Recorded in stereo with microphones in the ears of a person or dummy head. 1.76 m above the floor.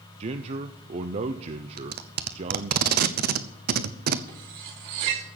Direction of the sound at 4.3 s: 25° right (ahead or behind).